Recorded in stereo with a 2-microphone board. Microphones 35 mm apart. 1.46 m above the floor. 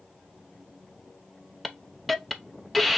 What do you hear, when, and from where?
1.6 s a hiss: 5° left (ahead or behind), 0.6 m